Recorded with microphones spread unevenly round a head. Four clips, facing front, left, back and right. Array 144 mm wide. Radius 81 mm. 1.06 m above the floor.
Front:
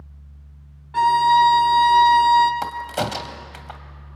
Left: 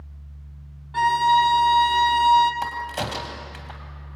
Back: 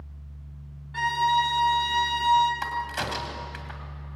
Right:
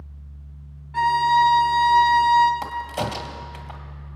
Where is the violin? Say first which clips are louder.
Even, front 9 dB; 15° left, 1.7 m.